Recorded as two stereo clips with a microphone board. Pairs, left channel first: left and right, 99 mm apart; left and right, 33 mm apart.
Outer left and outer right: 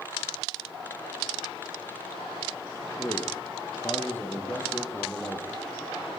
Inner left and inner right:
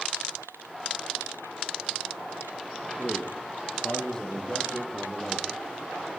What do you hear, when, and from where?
3.0 s a man speaking: 25° left (ahead or behind), 4 m; by 5.6 s 15° left (ahead or behind), 6.5 m